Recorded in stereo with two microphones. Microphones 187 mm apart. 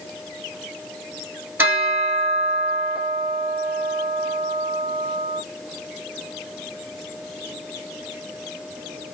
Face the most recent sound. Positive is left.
turn(degrees=-10)  # may be behind; listen again after turning